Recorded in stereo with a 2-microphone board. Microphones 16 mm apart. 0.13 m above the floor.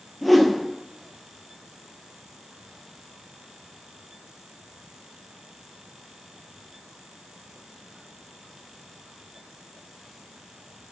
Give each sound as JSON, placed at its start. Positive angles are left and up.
{"t": 0.2, "sound": "a whoosh", "side_deg": 0, "distance_m": 0.5}